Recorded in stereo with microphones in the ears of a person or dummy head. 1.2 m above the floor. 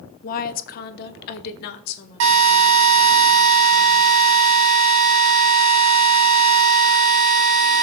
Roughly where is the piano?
No piano in this recording.